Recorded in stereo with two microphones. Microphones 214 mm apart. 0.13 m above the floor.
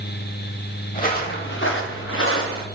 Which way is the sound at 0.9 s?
35° left (ahead or behind).